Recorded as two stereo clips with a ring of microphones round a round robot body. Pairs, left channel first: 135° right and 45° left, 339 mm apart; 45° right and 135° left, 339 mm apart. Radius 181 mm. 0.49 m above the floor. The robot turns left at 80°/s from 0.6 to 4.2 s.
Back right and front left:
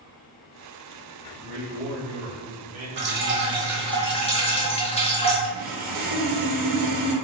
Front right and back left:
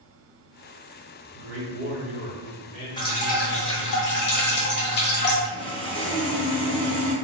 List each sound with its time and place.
1.3 s a man speaking: 130° left, 1.4 m; by 4.0 s 80° right, 1.4 m
3.0 s dripping: 25° left, 0.8 m; by 5.3 s 75° right, 0.8 m
5.4 s sawing: 15° left, 0.9 m